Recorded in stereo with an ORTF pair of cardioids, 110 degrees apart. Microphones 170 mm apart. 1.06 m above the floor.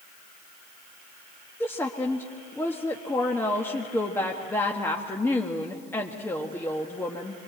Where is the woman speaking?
10° left, 1.4 m.